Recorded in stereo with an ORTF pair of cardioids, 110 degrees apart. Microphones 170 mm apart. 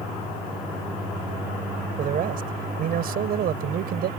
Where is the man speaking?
55° right; by 4.1 s 65° right.